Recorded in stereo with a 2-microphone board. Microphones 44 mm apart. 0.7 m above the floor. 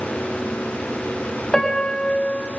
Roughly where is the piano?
Centre.